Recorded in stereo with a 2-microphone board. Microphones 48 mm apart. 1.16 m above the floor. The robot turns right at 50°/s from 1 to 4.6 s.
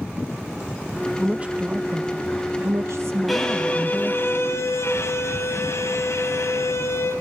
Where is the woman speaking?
160° right, 1.0 m; by 4.3 s 5° right, 1.0 m.